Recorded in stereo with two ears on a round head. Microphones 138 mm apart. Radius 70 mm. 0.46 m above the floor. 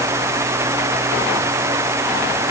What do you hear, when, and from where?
Only background noise.